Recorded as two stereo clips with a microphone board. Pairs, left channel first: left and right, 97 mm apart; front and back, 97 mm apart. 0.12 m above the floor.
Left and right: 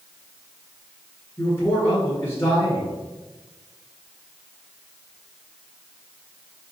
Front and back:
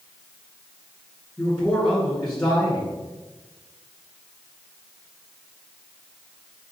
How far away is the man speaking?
About 1.3 m.